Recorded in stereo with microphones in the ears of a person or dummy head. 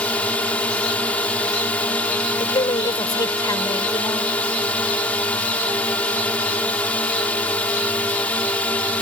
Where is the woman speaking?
30° left (ahead or behind).